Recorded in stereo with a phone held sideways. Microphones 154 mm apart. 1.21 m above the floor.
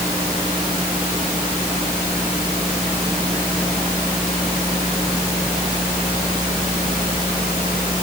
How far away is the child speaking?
No child speaking in this recording.